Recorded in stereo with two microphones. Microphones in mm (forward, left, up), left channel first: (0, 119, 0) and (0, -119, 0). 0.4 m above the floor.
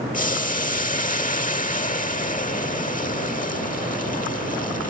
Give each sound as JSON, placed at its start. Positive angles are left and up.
{"t": 0.1, "sound": "boiling", "side_deg": 30}